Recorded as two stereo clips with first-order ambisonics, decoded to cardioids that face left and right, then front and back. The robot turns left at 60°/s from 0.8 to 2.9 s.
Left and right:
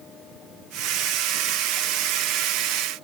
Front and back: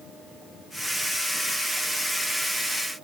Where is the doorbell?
No doorbell in this recording.